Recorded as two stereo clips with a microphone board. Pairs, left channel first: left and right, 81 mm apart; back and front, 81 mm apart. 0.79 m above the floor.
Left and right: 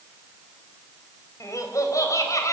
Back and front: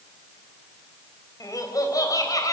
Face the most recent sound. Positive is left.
turn(degrees=135)